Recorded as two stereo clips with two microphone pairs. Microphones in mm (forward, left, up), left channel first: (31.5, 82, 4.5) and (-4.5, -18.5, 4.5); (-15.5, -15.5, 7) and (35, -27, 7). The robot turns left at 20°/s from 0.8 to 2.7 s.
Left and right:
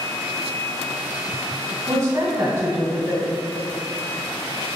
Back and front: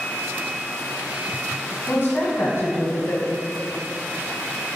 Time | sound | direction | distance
1.9 | a woman speaking | 140° right | 1.6 m